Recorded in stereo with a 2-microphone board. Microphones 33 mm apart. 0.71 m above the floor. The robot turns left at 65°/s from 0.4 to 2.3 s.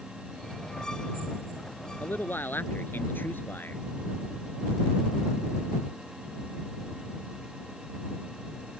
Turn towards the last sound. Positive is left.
turn(degrees=80)